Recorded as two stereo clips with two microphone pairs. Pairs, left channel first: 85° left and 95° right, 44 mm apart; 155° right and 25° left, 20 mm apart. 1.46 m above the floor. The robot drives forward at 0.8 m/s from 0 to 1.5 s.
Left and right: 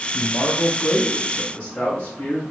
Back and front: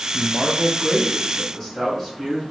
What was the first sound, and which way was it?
A man speaking, 55° left.